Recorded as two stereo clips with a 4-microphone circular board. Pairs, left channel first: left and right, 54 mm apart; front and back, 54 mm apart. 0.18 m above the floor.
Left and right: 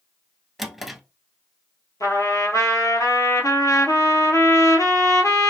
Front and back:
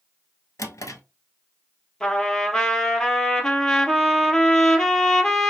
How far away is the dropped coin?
No dropped coin in this recording.